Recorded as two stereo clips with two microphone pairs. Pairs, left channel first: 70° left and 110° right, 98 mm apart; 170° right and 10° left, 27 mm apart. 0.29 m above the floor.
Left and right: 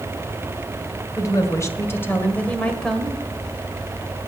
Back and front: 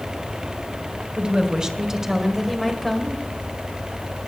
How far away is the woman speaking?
About 1.8 m.